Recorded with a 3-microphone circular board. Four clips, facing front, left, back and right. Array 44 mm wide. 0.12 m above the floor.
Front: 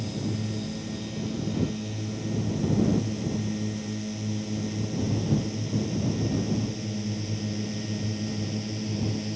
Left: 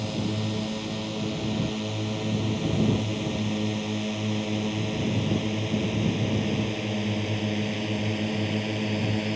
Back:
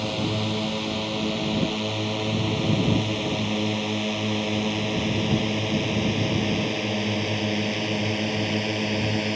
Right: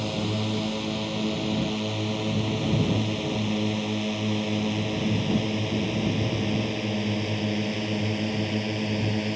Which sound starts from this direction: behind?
A drone, at 0.0 s.